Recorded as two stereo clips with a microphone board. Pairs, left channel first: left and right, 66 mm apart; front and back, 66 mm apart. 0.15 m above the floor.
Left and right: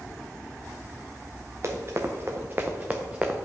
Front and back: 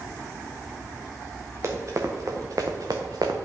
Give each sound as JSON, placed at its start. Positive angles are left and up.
{"t": 1.6, "sound": "running footsteps", "azimuth_deg": -135, "distance_m": 1.5}